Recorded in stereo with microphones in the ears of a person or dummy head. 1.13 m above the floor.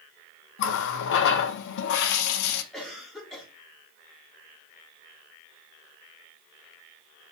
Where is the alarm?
I don't hear an alarm.